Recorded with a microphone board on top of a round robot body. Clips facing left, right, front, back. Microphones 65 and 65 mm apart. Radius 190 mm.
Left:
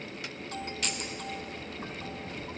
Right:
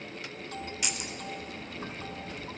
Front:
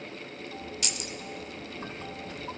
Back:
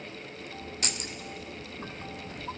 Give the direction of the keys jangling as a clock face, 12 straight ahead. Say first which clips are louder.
Left 1 dB, back 1 dB; 5 o'clock.